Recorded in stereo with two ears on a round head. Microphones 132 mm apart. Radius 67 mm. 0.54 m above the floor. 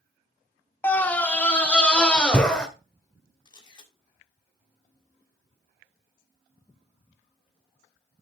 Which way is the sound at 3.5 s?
30° left (ahead or behind).